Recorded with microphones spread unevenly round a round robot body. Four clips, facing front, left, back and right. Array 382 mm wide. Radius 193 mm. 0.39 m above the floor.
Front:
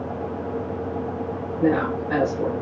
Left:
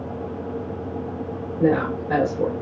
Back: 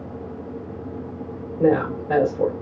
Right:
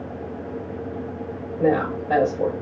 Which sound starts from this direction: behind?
A woman speaking, at 1.6 s.